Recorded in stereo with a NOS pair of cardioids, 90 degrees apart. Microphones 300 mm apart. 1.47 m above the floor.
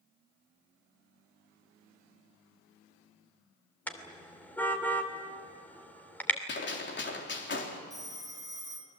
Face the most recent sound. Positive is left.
turn(degrees=-10)